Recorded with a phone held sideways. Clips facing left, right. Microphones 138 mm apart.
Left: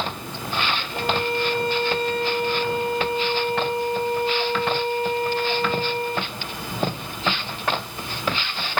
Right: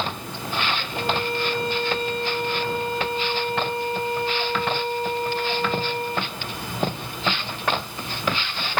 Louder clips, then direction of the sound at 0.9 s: Left 2 dB; 55° left (ahead or behind).